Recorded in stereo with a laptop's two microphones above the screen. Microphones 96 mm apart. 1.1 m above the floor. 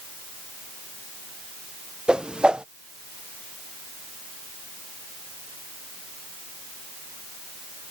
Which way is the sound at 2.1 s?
10° right (ahead or behind).